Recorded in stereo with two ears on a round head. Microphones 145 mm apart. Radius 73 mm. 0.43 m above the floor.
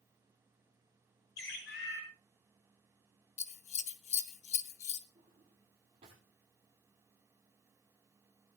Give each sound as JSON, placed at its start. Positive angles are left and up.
{"t": 1.4, "sound": "a bird", "side_deg": 70, "distance_m": 5.5}
{"t": 3.4, "sound": "scissors", "side_deg": 45, "distance_m": 1.0}
{"t": 5.2, "sound": "a drawer", "side_deg": -40, "distance_m": 6.5}